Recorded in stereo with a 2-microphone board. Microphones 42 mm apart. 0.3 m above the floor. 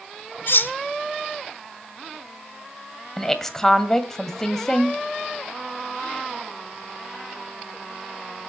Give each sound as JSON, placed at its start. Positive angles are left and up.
{"t": 0.5, "sound": "cutlery clinking", "side_deg": 60, "distance_m": 1.4}
{"t": 3.2, "sound": "a woman speaking", "side_deg": 10, "distance_m": 1.9}